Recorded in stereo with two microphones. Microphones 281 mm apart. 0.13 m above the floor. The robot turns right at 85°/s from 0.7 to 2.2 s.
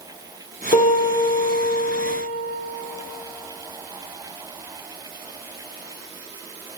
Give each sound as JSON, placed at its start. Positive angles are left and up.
{"t": 0.7, "sound": "a piano", "azimuth_deg": 150, "distance_m": 1.2}